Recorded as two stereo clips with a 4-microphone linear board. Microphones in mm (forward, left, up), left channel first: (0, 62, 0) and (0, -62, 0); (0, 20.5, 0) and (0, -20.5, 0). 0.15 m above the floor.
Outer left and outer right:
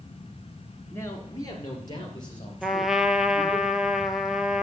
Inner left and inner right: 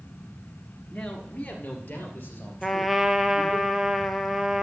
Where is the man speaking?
20° left (ahead or behind), 1.7 m; by 3.6 s 45° left (ahead or behind), 4.5 m.